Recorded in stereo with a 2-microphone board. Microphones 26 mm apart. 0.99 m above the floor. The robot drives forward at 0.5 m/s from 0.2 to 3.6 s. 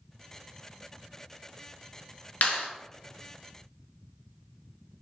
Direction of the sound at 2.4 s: 80° left.